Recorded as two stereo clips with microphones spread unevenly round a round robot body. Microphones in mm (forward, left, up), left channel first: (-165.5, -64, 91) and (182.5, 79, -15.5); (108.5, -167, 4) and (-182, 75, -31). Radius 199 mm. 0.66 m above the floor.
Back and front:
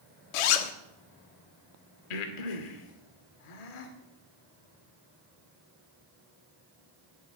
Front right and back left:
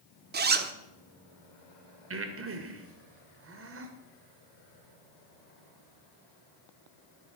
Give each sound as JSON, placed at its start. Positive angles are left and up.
{"t": 0.3, "sound": "a zipper", "azimuth_deg": -160, "distance_m": 1.3}
{"t": 2.1, "sound": "breathing", "azimuth_deg": -165, "distance_m": 2.0}